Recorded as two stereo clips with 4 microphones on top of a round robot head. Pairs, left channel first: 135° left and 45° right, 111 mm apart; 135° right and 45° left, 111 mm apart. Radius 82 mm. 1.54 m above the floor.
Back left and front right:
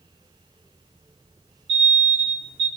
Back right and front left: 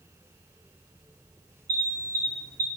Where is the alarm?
20° right, 1.7 m.